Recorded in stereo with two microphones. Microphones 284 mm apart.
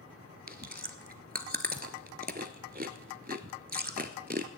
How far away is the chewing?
About 0.8 m.